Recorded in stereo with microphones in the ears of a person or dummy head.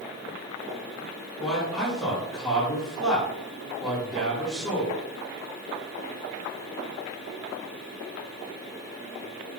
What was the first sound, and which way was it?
A man speaking, 5° right (ahead or behind).